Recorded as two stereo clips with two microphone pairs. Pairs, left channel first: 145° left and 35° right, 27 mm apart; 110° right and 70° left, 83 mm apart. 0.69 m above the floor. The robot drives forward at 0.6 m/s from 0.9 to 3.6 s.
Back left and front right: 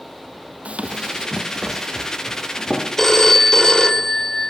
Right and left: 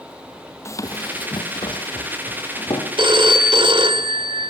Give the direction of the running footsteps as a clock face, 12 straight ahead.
2 o'clock.